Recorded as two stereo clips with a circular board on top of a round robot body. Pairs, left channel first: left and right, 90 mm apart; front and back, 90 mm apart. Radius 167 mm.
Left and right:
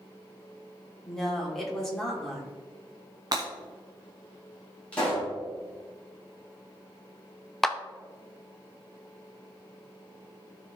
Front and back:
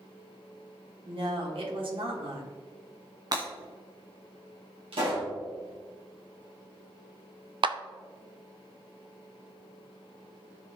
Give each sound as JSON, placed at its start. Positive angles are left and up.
{"t": 1.1, "sound": "a woman speaking", "azimuth_deg": 175, "distance_m": 3.0}
{"t": 3.3, "sound": "breaking glass", "azimuth_deg": -135, "distance_m": 1.3}
{"t": 4.9, "sound": "a pop", "azimuth_deg": 165, "distance_m": 4.0}
{"t": 7.6, "sound": "a clap", "azimuth_deg": 175, "distance_m": 0.8}